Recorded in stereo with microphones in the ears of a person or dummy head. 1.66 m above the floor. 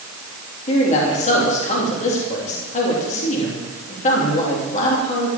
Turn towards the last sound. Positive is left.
turn(degrees=45)  # may be behind; listen again after turning